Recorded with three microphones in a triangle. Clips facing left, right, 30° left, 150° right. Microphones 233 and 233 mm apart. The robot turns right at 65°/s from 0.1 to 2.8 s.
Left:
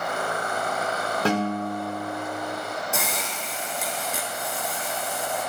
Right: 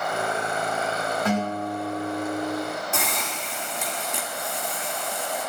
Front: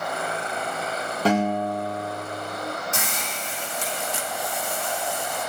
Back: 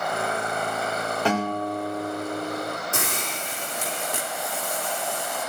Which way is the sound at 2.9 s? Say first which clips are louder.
Even, back 2 dB; straight behind.